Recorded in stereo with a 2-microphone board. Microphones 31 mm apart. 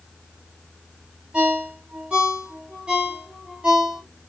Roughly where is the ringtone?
Right.